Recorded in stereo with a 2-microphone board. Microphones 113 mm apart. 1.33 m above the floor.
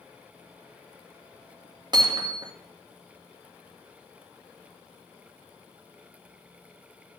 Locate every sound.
1.9 s hammering: 40° right (ahead or behind), 2.5 m